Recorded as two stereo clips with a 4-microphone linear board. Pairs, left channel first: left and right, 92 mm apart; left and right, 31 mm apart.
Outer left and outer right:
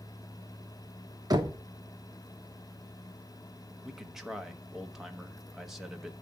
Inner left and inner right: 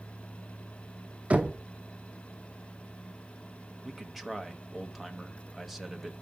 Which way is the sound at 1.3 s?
40° right (ahead or behind).